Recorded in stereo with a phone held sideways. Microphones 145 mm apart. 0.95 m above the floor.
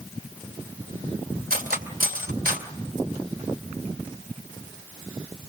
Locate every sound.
1.5 s cutlery clinking: 80° right, 2.5 m